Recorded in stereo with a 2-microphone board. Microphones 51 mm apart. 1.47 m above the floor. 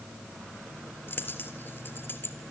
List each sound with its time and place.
1.1 s a dropped coin: 45° left (ahead or behind), 3 m